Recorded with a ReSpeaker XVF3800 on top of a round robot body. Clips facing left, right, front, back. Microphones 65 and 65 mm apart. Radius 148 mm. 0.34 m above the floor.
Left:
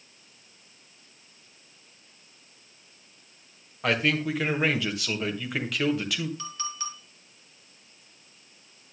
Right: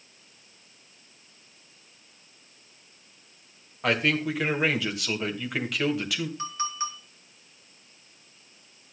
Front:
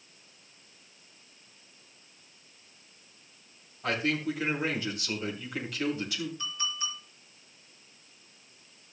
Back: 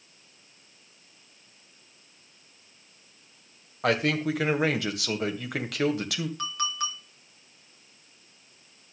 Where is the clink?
155° right, 4 m.